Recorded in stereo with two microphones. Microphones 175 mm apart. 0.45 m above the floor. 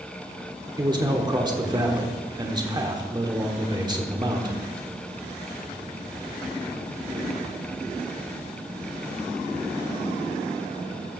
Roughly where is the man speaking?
Right.